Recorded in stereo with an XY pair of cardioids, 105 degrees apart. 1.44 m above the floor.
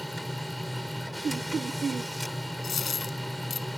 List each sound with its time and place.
0.0 s a machine running: straight ahead
1.2 s laughter: 40° right
2.6 s a dropped coin: 40° left